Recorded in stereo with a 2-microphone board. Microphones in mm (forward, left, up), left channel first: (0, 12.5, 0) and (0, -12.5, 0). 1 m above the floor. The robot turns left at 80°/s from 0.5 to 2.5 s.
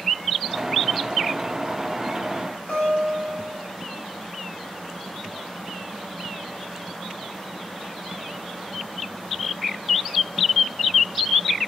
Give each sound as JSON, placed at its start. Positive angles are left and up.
{"t": 2.7, "sound": "a guitar", "side_deg": 80, "distance_m": 1.8}